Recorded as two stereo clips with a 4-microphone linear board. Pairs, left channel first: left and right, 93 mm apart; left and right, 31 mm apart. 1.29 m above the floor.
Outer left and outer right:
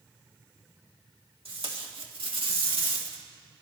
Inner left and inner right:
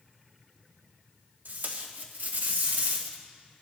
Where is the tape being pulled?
80° right, 1.8 m.